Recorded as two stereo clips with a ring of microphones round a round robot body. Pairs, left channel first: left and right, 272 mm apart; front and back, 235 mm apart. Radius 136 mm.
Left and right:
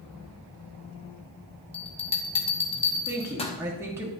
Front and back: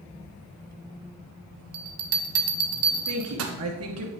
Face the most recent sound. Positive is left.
turn(degrees=-170)